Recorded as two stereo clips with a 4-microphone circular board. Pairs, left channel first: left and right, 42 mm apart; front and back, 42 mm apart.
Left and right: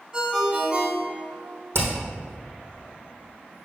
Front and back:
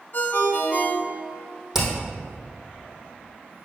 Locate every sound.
0.1 s a ringtone: 25° right, 1.2 m
1.7 s hammering: 100° right, 2.5 m